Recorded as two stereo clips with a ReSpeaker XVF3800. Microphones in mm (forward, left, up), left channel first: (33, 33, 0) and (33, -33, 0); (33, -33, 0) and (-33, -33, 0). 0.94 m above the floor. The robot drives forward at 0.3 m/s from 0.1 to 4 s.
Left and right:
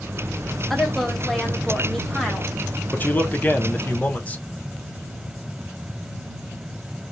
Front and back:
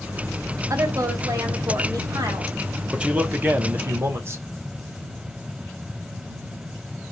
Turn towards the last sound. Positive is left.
turn(degrees=150)